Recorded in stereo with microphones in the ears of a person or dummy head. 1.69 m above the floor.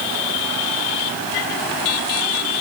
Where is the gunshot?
I don't hear a gunshot.